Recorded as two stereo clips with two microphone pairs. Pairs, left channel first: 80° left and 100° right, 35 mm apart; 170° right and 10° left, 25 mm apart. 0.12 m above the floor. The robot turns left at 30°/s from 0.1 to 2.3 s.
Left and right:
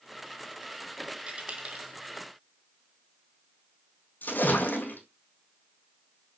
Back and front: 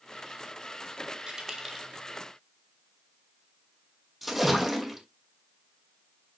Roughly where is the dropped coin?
Ahead right.